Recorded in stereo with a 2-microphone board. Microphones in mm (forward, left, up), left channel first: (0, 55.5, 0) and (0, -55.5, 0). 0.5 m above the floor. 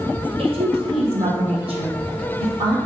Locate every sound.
0.4 s a woman speaking: 65° right (ahead or behind), 2.5 m; by 2.8 s 50° right (ahead or behind), 4 m